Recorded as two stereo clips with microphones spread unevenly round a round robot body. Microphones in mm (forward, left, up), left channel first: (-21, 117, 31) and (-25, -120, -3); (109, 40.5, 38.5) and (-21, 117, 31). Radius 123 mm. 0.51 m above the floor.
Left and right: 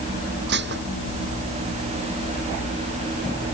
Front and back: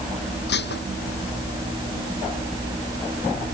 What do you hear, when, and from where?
0.5 s dishes clattering: 40° right